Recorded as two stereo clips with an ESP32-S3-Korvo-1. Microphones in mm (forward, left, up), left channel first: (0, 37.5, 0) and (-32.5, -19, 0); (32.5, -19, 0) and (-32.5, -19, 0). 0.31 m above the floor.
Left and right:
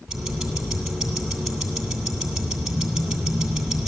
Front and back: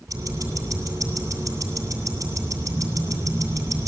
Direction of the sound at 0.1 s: 155° left.